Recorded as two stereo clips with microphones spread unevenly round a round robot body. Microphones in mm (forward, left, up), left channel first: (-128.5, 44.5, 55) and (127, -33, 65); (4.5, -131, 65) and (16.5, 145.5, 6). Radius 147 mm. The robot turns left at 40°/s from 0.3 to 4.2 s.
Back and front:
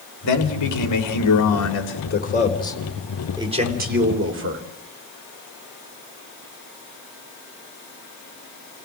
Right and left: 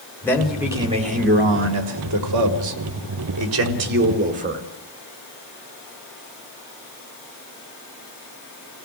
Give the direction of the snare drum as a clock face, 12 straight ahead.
No snare drum in this recording.